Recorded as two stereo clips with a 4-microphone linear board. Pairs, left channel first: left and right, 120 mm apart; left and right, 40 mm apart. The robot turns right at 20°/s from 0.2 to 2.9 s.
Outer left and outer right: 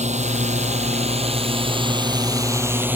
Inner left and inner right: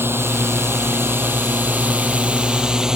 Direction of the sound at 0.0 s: 70° right (ahead or behind).